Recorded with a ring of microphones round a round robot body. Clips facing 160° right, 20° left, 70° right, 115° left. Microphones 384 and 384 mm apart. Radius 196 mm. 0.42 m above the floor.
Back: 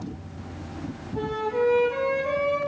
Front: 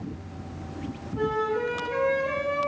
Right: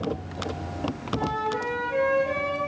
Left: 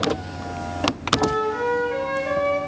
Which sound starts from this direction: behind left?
A flute, at 1.1 s.